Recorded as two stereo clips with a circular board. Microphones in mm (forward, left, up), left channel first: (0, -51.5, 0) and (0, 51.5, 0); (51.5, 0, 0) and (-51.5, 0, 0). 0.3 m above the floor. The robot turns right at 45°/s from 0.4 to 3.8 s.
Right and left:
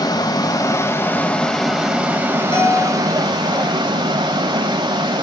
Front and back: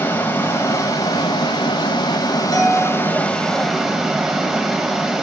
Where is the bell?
50° right, 2.5 m; by 3.0 s 30° right, 2.5 m.